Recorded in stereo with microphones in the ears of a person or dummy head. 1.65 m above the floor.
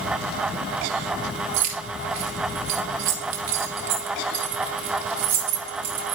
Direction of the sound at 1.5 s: 40° right (ahead or behind).